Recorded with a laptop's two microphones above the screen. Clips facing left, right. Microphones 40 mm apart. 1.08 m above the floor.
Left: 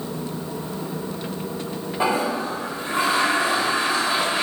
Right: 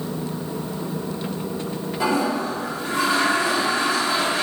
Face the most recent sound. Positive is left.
turn(degrees=30)  # may be behind; listen again after turning